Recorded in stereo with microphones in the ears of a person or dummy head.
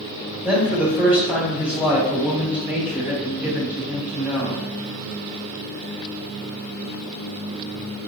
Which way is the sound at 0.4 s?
5° right (ahead or behind).